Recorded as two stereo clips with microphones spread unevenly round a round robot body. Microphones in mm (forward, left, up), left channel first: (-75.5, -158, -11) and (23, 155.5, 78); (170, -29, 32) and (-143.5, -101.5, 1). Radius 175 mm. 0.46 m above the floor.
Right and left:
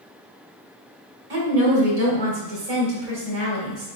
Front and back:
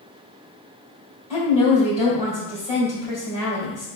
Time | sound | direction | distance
1.3 | a woman speaking | 90° left | 2 m